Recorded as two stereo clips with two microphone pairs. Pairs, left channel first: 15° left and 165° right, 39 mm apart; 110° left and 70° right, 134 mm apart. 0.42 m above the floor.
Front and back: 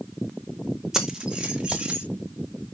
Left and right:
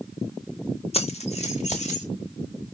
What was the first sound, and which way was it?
Keys jangling, 125° left.